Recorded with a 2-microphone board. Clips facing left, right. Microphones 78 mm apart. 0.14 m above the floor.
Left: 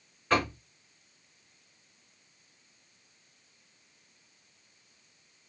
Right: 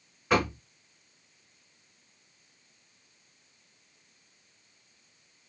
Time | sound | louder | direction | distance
0.3 | knocking | right 2 dB | 10° right (ahead or behind) | 0.9 m